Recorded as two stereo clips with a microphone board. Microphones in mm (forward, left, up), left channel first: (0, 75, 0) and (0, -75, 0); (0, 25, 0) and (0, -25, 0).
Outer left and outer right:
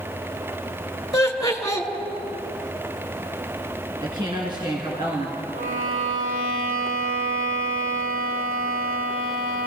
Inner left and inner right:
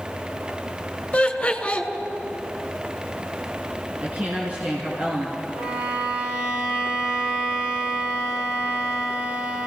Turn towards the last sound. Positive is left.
turn(degrees=-45)  # may be behind; listen again after turning